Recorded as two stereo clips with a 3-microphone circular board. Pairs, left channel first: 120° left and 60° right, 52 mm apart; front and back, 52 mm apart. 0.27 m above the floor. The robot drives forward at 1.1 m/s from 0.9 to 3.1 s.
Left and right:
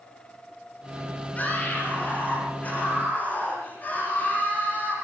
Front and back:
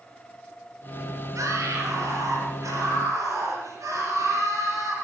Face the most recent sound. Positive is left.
turn(degrees=180)